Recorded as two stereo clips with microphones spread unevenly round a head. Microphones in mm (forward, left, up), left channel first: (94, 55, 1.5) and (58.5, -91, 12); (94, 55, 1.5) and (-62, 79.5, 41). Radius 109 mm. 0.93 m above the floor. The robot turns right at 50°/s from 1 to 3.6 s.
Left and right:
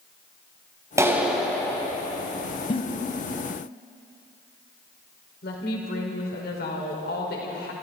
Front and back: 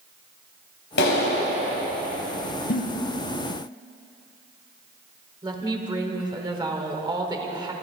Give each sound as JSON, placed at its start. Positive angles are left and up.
{"t": 1.0, "sound": "a clap", "azimuth_deg": -35, "distance_m": 4.5}
{"t": 2.7, "sound": "a giggle", "azimuth_deg": 20, "distance_m": 1.6}
{"t": 5.4, "sound": "a woman speaking", "azimuth_deg": 105, "distance_m": 4.0}